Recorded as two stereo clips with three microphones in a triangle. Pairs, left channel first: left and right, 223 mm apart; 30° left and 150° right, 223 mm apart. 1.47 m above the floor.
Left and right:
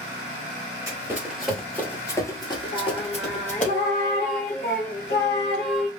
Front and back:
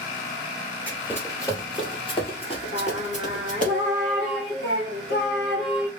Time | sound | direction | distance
0.9 | running footsteps | 40° right | 1.5 m
2.7 | singing | 60° left | 1.4 m